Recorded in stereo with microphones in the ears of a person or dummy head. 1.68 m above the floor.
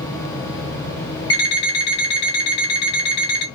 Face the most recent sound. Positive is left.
turn(degrees=35)  # may be behind; listen again after turning